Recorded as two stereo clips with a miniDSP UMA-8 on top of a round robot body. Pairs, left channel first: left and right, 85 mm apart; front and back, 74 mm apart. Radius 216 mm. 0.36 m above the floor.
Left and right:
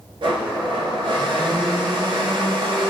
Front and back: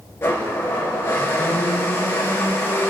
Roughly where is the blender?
Ahead right.